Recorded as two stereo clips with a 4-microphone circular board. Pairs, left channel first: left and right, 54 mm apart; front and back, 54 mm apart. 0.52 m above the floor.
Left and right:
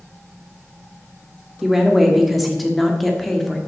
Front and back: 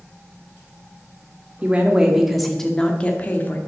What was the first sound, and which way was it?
A woman speaking, 170° right.